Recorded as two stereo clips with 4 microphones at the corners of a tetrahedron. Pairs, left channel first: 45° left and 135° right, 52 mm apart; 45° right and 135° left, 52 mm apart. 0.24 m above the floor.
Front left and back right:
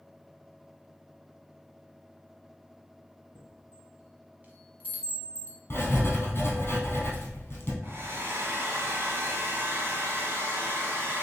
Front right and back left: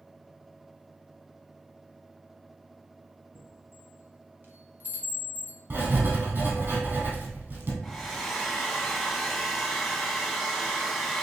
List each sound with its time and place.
3.4 s a chime: 170° left, 1.1 m
5.7 s writing: 90° left, 1.7 m
7.8 s a hair dryer: 135° right, 1.2 m